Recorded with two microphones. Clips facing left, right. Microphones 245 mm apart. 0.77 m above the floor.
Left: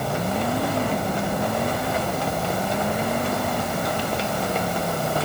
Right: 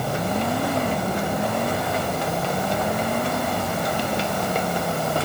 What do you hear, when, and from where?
Only background noise.